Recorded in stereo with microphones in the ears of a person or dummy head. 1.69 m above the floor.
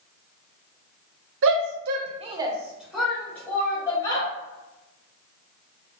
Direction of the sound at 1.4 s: 75° right (ahead or behind).